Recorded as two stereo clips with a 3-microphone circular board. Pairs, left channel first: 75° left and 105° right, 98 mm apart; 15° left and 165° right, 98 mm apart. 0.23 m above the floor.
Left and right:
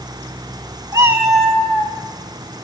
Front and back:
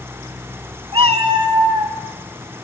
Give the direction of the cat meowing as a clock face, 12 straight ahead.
5 o'clock.